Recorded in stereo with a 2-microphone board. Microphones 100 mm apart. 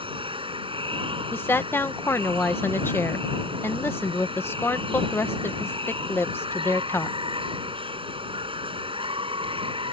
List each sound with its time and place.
0.0 s running water: 60° right (ahead or behind)
1.3 s a woman speaking: 20° left (ahead or behind)